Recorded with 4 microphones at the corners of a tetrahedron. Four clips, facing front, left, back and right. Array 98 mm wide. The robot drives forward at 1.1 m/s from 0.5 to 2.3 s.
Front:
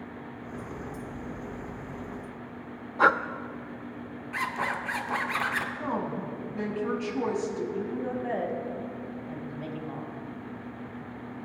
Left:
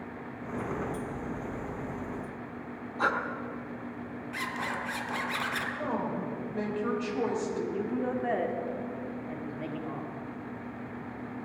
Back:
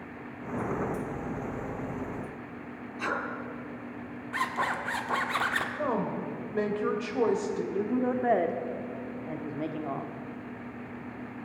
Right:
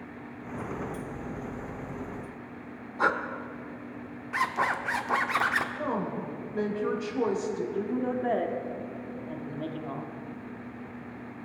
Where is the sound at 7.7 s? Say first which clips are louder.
Right 1 dB, back 4 dB; 165° right, 1.3 m.